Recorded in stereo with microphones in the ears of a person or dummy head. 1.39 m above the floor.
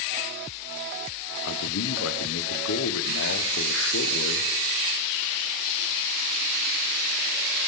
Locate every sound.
1.4 s a man speaking: 75° left (ahead or behind), 0.9 m